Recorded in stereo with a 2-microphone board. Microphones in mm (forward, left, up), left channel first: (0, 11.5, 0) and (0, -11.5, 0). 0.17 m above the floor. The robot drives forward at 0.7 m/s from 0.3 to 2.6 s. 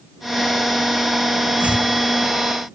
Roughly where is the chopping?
Right.